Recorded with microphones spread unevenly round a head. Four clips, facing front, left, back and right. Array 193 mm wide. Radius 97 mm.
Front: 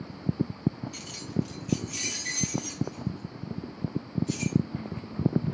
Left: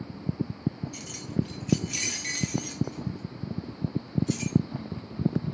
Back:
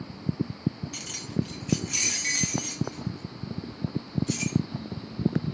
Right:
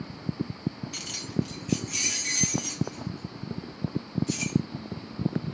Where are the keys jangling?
140° right, 0.7 m; by 4.6 s 95° left, 1.8 m.